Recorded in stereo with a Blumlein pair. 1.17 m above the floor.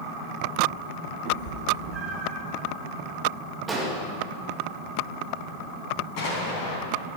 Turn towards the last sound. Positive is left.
turn(degrees=45)